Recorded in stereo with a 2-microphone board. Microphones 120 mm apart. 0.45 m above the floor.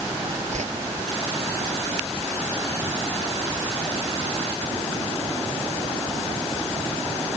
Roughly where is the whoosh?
Right.